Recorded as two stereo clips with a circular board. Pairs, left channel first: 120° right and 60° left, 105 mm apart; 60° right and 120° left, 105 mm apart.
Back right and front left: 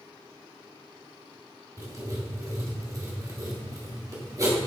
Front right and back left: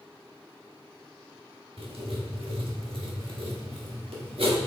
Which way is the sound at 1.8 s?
115° left.